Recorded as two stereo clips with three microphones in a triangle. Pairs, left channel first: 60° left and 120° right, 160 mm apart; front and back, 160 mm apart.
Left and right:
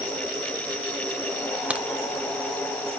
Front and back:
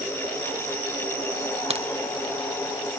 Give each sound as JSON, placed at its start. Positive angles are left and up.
{"t": 1.7, "sound": "a crack", "azimuth_deg": 165, "distance_m": 0.7}